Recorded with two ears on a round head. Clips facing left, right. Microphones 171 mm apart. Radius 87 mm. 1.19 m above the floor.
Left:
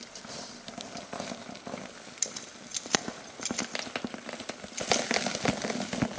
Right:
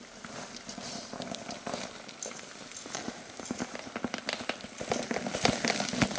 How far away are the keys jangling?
About 1.0 m.